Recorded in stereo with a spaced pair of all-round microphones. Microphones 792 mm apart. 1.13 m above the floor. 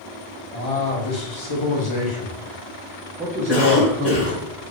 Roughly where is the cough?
Left.